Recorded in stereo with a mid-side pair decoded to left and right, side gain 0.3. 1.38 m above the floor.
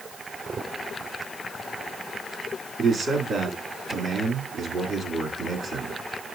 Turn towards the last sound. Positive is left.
turn(degrees=-70)